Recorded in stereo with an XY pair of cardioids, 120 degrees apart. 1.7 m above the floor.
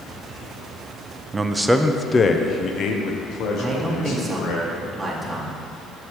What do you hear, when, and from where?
1.3 s a man speaking: 25° right, 0.6 m; by 4.6 s 80° left, 1.9 m
3.6 s a man speaking: 10° right, 1.3 m